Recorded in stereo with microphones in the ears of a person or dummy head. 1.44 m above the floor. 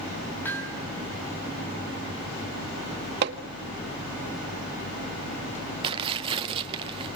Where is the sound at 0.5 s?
10° left (ahead or behind), 4.5 m.